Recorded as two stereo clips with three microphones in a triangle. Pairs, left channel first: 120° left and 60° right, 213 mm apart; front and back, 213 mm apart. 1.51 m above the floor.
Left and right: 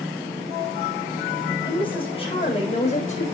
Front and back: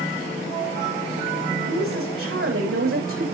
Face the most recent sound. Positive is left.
turn(degrees=175)